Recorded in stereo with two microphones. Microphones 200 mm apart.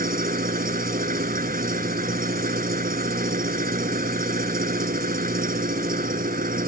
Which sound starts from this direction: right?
An engine running, at 0.0 s.